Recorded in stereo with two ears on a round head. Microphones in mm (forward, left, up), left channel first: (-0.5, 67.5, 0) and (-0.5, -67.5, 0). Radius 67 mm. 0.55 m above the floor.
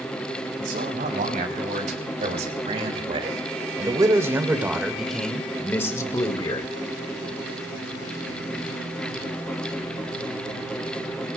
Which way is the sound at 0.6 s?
60° right (ahead or behind).